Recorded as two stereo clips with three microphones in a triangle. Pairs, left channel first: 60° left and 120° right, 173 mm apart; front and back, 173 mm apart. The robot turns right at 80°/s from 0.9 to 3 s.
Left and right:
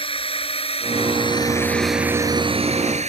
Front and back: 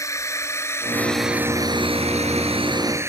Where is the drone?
55° left; by 3.1 s 115° right.